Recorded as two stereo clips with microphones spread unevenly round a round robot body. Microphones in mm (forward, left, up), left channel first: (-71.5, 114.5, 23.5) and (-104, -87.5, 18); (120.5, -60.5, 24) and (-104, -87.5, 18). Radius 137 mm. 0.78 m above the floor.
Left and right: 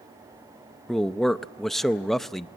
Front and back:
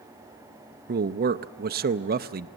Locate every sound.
0.9 s a man speaking: 170° left, 0.6 m